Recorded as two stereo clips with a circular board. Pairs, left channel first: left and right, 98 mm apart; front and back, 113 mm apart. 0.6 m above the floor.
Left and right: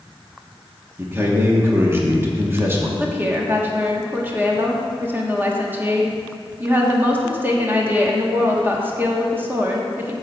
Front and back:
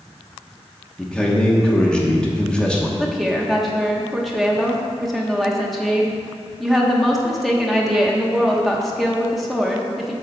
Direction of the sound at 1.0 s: 70° right.